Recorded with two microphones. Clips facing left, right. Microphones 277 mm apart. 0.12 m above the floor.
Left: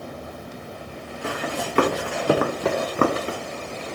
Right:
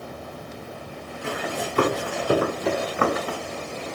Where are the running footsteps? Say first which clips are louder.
Left 1 dB; 75° left (ahead or behind), 1.6 m; by 3.4 s 20° left (ahead or behind), 0.7 m.